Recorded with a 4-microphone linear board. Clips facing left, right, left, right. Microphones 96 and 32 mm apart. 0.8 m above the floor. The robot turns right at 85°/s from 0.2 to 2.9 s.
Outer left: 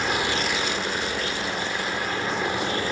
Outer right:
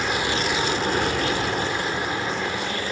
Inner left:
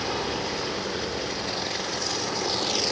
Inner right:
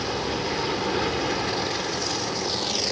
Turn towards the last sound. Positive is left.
turn(degrees=50)